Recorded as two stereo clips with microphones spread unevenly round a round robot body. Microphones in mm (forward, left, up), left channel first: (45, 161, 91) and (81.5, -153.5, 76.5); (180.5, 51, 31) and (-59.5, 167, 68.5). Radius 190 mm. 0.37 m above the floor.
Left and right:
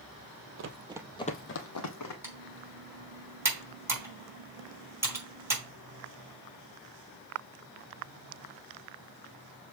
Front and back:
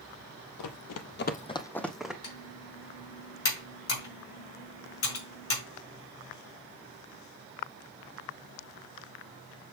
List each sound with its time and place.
0.6 s running footsteps: 35° right, 0.8 m; by 2.1 s 70° left, 1.4 m
2.2 s typing on a keyboard: straight ahead, 4 m